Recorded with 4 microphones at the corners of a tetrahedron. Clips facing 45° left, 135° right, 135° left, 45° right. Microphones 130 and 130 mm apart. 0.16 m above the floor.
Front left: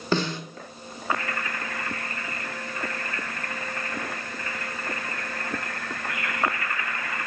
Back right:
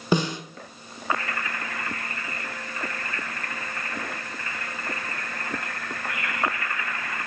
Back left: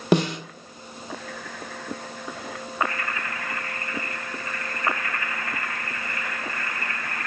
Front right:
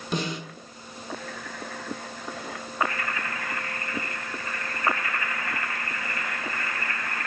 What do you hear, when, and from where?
0.1 s a snare drum: 150° left, 0.5 m